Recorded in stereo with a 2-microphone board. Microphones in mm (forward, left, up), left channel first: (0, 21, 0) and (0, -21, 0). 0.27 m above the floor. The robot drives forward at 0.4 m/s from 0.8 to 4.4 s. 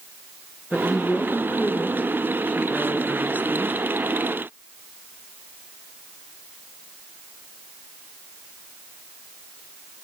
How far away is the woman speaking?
About 4 m.